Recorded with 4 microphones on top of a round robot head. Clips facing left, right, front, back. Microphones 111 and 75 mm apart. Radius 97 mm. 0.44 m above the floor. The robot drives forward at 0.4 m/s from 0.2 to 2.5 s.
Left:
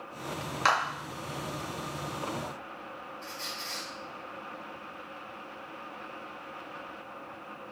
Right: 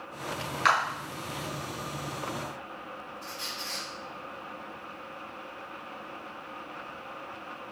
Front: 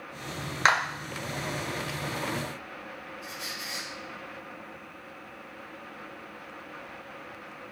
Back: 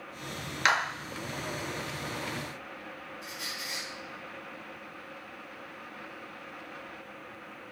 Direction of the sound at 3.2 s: 170° right.